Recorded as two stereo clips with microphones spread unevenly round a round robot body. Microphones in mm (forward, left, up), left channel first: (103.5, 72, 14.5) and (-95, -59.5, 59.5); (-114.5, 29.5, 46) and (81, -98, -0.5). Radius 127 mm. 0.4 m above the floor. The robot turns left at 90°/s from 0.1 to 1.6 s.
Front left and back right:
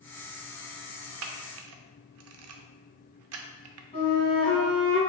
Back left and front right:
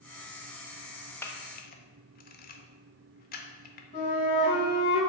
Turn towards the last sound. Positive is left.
turn(degrees=90)